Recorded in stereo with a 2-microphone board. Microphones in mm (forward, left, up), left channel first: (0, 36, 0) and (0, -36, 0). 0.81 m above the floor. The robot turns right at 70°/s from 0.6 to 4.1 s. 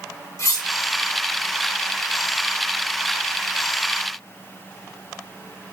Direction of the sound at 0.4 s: 45° left (ahead or behind).